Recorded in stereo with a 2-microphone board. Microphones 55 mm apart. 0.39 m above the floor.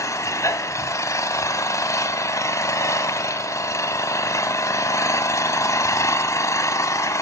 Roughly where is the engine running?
Left.